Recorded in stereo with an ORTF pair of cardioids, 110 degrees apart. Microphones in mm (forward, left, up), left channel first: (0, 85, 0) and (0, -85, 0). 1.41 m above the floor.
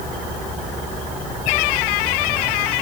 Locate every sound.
Only background noise.